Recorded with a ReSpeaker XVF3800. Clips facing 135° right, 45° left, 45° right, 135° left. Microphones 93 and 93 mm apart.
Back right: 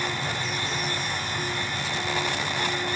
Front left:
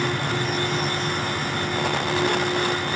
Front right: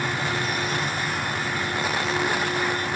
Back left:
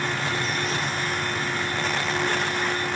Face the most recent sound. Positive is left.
No sound to turn to.